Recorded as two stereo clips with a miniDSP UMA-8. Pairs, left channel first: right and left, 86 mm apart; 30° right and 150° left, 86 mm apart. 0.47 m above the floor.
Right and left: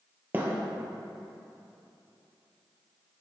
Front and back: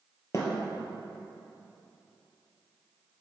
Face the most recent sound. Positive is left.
turn(degrees=20)